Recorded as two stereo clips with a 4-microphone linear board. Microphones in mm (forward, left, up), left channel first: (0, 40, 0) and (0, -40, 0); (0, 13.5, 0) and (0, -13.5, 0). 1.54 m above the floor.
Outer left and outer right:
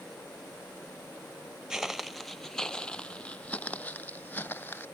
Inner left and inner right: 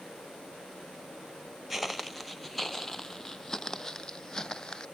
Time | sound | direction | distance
1.7 | footsteps | 5° right (ahead or behind) | ?